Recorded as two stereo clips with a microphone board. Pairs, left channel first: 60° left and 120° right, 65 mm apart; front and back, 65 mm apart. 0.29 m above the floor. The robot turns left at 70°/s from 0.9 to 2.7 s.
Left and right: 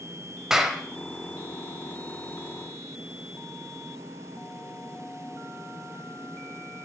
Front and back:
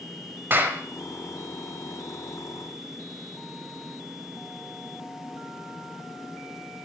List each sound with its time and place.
0.5 s a clap: 165° left, 1.0 m